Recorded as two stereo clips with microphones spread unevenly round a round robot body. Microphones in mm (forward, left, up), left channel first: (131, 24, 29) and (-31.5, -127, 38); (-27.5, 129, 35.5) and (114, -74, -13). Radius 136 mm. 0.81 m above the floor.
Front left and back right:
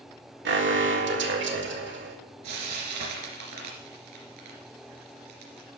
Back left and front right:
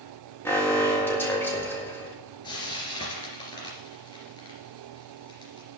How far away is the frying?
About 2.5 m.